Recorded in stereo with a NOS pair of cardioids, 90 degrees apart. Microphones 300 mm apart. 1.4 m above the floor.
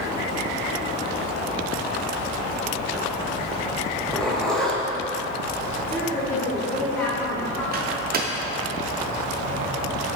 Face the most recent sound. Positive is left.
turn(degrees=-30)